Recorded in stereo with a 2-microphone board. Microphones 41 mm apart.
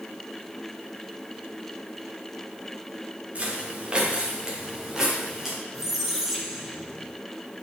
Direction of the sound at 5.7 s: 10° right (ahead or behind).